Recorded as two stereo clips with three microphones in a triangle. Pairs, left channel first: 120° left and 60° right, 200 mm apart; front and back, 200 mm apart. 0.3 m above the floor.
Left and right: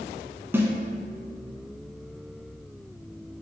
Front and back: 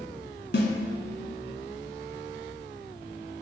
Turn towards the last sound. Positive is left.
turn(degrees=20)